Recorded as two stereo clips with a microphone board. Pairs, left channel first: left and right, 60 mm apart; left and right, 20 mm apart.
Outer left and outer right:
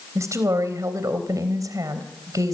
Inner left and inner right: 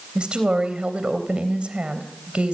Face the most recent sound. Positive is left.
turn(degrees=-75)  # may be behind; listen again after turning